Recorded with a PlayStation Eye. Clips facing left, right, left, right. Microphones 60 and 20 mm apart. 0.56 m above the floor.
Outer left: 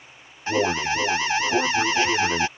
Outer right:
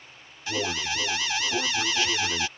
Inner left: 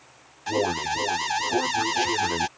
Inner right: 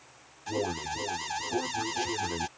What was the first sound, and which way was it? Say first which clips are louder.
An alarm: outer left 7 dB, inner left 7 dB; 35° left (ahead or behind).